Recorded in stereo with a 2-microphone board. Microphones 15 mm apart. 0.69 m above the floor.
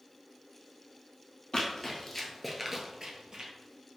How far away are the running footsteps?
About 1.1 m.